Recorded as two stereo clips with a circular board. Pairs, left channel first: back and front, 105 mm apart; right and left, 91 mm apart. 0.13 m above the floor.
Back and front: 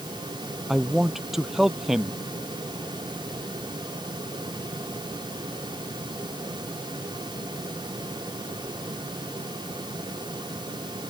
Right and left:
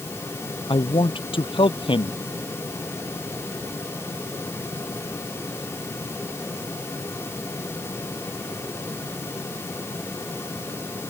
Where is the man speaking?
85° right.